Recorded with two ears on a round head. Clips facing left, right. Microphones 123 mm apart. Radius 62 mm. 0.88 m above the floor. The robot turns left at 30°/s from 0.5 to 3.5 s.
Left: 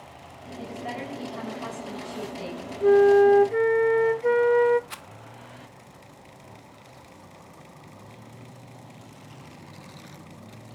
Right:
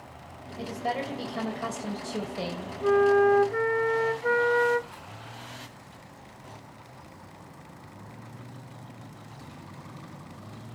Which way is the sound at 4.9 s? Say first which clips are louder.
Left 2 dB; 80° left.